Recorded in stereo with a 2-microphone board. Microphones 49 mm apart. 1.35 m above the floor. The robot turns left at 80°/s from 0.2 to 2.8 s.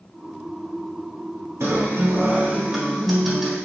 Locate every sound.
1.6 s a guitar: 85° right, 1.4 m; by 3.6 s straight behind, 1.4 m